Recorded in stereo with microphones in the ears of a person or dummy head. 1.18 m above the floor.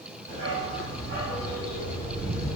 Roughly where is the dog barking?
Right.